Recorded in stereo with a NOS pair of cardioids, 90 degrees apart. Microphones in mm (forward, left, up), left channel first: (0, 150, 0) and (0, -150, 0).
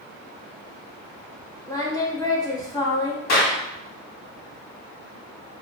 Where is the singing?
10° left, 1.1 m.